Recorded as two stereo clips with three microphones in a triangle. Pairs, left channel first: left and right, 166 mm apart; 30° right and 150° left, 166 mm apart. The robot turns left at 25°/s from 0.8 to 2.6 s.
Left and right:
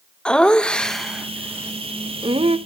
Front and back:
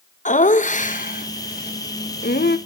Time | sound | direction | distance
0.2 | laughter | 5° left | 1.0 m